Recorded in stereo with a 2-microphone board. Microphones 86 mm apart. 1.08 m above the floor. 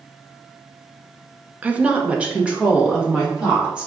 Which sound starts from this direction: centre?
A woman speaking, at 1.6 s.